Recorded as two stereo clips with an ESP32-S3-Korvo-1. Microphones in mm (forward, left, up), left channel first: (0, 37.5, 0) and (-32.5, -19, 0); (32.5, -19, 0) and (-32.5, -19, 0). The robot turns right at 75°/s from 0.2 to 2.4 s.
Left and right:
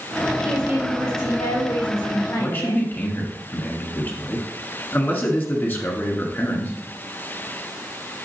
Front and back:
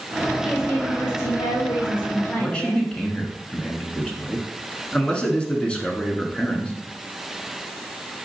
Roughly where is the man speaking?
Ahead left.